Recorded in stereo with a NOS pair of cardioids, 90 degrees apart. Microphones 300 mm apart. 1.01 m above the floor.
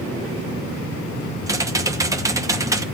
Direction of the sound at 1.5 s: 10° right.